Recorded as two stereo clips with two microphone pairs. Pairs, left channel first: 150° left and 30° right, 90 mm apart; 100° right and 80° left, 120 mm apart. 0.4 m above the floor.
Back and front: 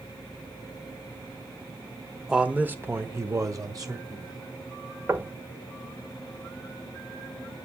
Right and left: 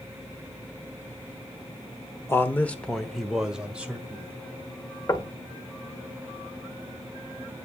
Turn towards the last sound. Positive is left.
turn(degrees=-65)